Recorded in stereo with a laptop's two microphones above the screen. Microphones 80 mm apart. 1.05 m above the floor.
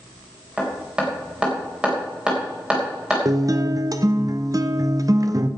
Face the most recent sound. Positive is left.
turn(degrees=-45)  # may be behind; listen again after turning